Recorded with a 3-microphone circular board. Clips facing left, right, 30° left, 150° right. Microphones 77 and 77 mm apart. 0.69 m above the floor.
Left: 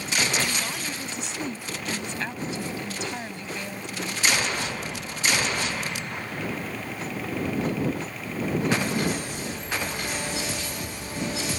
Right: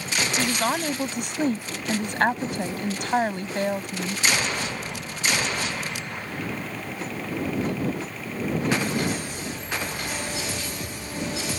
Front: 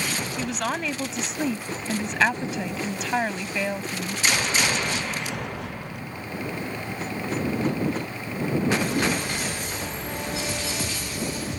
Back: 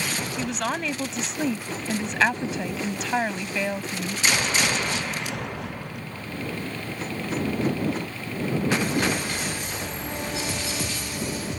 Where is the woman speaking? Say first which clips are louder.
Right 5 dB, even; 60° right.